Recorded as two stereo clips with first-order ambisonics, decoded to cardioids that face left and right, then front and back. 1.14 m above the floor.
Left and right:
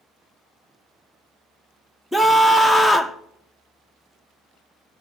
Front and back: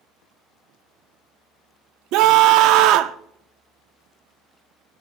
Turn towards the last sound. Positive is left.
turn(degrees=180)